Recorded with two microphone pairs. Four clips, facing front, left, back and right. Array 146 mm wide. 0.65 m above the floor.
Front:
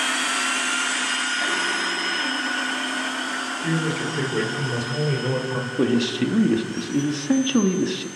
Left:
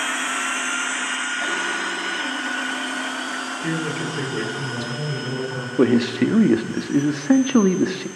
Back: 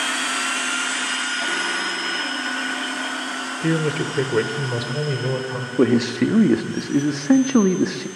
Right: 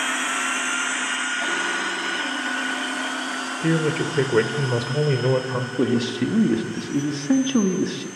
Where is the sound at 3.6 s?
140° right, 3 m; by 5.7 s 85° right, 3.5 m.